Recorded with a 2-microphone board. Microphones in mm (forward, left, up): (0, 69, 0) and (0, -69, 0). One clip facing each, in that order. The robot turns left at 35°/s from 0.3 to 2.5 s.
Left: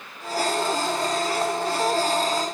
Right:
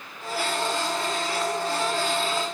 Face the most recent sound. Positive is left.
No sound to turn to.